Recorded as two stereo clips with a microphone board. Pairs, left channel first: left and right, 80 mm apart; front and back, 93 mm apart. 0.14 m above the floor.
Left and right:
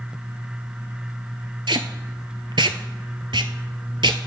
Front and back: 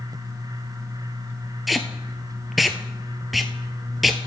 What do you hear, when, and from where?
1.7 s tape being pulled: 90° right, 0.8 m